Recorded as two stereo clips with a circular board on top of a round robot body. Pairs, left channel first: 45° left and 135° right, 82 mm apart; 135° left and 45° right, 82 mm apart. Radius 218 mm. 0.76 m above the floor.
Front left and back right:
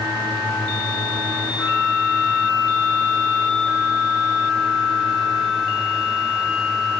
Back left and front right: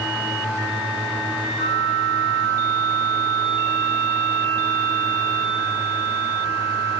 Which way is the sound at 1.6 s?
130° left.